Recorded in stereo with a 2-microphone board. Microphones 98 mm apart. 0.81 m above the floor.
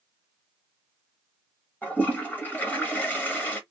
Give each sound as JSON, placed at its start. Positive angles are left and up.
{"t": 1.8, "sound": "a toilet flushing", "side_deg": 20, "distance_m": 1.2}